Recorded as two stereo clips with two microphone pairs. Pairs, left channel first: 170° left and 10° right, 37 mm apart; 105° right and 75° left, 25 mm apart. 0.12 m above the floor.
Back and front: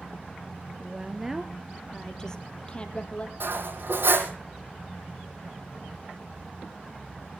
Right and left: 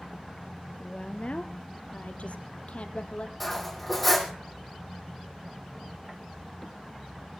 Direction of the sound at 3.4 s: 15° right.